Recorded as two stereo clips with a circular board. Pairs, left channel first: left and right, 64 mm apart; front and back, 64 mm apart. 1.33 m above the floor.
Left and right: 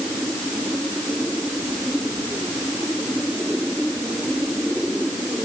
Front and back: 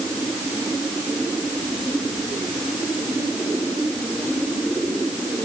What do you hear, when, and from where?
Only background noise.